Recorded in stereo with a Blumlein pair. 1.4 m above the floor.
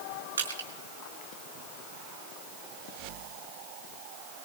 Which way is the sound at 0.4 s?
70° right.